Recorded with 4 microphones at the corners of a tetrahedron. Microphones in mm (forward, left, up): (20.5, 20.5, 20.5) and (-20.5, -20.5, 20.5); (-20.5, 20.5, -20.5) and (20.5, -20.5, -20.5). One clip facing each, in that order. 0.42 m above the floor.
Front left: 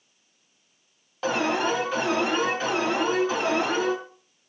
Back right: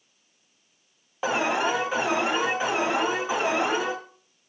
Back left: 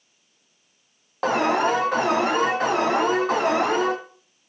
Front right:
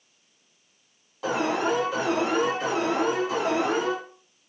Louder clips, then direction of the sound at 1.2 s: Even, back left 5 dB; 155° left.